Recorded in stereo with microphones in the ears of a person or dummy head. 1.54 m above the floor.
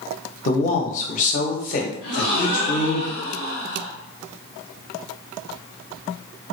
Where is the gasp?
50° left (ahead or behind), 1.4 m.